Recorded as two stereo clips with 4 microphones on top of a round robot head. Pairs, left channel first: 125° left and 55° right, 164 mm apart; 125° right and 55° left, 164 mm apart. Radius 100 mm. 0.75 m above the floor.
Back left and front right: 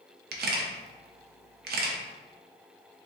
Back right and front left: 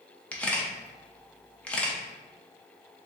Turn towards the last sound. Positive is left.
turn(degrees=-45)